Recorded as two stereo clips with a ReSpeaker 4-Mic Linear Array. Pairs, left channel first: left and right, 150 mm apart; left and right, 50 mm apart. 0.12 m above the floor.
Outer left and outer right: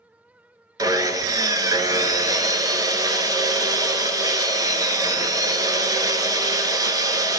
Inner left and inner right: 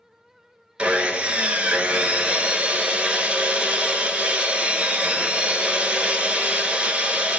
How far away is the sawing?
About 0.7 m.